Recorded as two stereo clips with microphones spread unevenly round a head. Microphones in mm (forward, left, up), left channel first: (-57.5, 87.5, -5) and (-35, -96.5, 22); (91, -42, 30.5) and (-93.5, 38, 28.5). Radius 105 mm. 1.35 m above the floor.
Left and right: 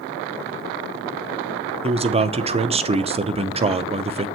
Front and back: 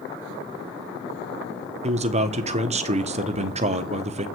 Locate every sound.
1.8 s a man speaking: 145° right, 0.8 m